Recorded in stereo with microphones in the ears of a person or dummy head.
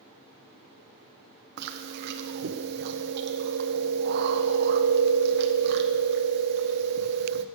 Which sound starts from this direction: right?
Chewing, at 1.6 s.